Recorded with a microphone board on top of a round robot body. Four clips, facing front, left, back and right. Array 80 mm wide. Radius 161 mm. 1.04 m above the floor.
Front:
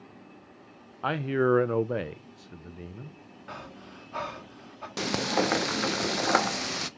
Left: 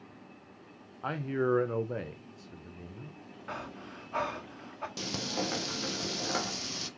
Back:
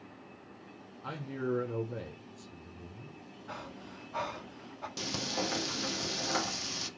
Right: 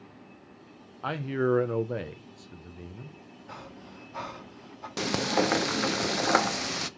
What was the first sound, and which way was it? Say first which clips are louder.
A man speaking: right 3 dB, front 11 dB; 10° right.